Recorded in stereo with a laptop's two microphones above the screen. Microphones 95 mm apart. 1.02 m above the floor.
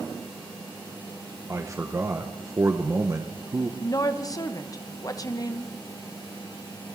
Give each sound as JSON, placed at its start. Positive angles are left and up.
{"t": 1.5, "sound": "a man speaking", "side_deg": -30, "distance_m": 0.7}
{"t": 3.8, "sound": "a woman speaking", "side_deg": 40, "distance_m": 1.0}